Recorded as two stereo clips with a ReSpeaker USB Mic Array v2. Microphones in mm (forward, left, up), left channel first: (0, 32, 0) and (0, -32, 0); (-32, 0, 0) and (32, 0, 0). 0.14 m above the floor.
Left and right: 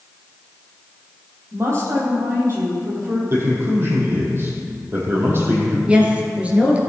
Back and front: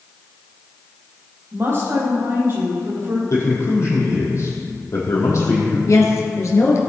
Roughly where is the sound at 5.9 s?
Behind right.